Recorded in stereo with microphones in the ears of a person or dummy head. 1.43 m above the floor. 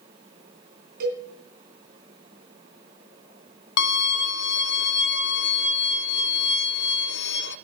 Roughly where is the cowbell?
Right.